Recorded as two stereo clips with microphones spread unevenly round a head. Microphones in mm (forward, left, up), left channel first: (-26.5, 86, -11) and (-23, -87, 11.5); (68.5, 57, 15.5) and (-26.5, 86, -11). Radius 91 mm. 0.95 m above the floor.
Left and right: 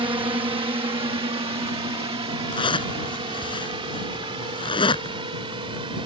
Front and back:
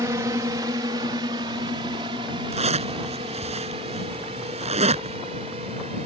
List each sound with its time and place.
0.0 s a drone: 150° right
2.5 s a zipper: 155° left